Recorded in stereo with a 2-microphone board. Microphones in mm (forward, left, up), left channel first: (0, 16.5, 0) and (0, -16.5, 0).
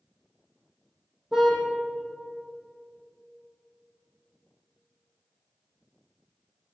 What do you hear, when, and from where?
1.3 s a car horn: 15° right (ahead or behind), 4.5 m